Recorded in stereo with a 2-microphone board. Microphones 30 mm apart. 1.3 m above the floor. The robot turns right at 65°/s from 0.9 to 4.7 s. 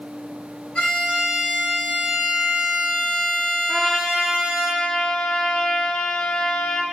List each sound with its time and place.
0.8 s a violin: 35° left, 3.5 m; by 4.7 s 80° right, 3.5 m
3.7 s a trumpet: 30° right, 1.0 m; by 6.8 s 35° left, 1.0 m